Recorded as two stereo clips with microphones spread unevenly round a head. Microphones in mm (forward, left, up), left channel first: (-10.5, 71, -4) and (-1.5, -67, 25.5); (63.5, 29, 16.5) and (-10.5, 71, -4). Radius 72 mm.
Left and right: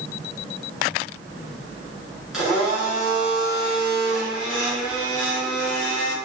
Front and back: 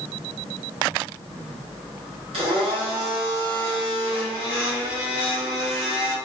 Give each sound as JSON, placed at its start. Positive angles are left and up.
{"t": 2.3, "sound": "a blender", "azimuth_deg": -165, "distance_m": 1.1}